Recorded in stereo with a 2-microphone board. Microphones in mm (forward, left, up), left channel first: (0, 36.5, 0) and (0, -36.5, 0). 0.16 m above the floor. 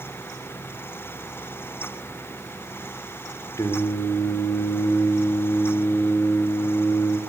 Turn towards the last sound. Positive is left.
turn(degrees=45)  # may be behind; listen again after turning